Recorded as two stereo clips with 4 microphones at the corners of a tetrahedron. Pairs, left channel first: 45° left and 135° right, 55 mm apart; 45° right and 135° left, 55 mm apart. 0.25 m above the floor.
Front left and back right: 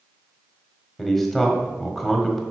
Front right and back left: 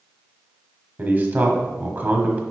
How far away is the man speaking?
About 1.2 m.